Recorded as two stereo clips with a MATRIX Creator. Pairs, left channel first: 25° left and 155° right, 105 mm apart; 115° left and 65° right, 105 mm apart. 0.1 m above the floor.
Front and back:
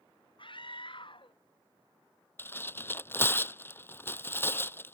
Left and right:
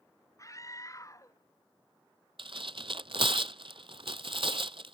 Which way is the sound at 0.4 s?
55° left.